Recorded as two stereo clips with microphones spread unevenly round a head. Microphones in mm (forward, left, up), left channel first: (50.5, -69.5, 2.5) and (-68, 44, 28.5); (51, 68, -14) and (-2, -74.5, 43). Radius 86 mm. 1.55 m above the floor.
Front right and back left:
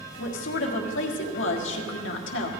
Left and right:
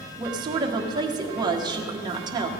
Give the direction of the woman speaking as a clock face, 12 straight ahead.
2 o'clock.